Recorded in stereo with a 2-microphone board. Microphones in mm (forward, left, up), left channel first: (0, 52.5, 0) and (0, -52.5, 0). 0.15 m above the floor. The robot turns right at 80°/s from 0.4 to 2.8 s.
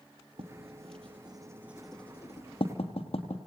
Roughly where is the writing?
Right.